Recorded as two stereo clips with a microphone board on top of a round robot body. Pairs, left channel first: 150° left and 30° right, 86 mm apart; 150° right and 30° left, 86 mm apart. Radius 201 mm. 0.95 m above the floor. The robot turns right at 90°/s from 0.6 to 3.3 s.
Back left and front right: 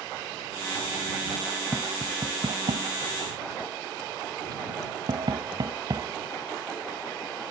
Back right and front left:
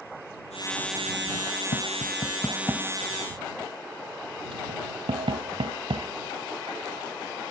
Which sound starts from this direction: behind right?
Tapping, at 1.7 s.